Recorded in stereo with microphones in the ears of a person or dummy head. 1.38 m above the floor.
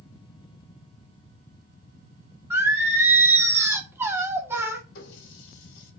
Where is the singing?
15° right (ahead or behind), 0.9 m.